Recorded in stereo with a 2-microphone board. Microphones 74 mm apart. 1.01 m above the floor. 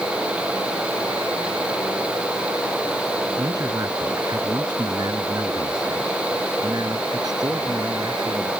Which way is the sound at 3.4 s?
55° right (ahead or behind).